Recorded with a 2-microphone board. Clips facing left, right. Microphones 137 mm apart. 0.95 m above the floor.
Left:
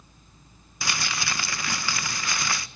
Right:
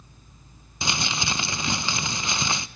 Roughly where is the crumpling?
Right.